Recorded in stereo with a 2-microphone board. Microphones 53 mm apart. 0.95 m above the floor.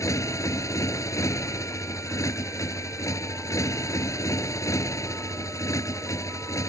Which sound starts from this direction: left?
A motorcycle, at 0.0 s.